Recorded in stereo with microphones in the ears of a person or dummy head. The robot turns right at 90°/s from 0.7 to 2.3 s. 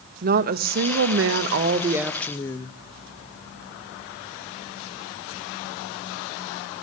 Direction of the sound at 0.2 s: 125° right.